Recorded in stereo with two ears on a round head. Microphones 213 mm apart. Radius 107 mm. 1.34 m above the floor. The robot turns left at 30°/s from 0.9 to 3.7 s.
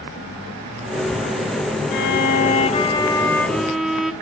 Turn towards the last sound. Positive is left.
turn(degrees=0)